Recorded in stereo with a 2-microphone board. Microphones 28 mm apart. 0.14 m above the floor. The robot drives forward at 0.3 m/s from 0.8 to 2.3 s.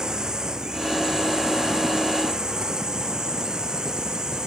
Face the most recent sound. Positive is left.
turn(degrees=-25)  # may be behind; listen again after turning